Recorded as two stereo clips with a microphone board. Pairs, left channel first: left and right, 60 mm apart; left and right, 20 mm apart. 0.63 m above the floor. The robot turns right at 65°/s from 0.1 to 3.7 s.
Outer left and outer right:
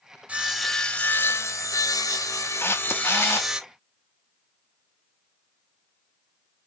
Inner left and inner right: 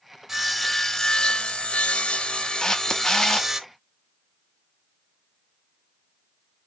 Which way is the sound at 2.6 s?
65° left.